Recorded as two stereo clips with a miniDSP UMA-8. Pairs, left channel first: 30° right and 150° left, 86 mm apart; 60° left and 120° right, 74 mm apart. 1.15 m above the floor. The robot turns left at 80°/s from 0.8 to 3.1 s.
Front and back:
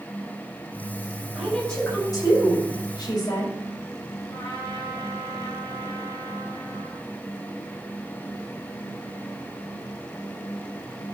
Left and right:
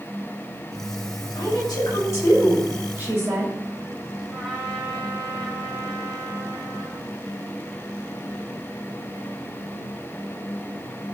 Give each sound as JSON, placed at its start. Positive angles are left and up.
{"t": 1.4, "sound": "a woman speaking", "azimuth_deg": 80, "distance_m": 6.0}
{"t": 4.3, "sound": "a trumpet", "azimuth_deg": -35, "distance_m": 5.5}